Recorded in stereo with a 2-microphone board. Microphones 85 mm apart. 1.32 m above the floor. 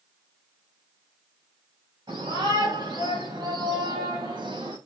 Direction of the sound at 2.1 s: 50° right (ahead or behind).